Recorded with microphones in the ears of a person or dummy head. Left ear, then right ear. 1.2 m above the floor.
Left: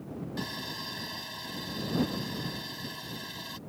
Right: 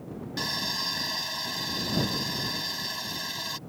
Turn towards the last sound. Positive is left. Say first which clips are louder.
# right 9 dB
turn(degrees=-25)  # may be behind; listen again after turning